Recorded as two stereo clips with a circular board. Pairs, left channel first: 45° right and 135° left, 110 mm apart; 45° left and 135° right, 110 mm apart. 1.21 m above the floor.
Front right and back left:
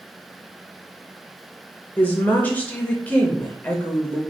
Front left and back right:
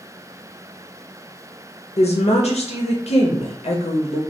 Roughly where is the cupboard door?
I don't hear a cupboard door.